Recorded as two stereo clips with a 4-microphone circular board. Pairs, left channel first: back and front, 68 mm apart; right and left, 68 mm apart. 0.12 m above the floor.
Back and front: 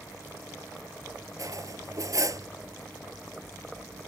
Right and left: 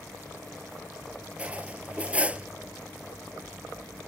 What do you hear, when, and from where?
1.4 s cutlery clinking: 25° left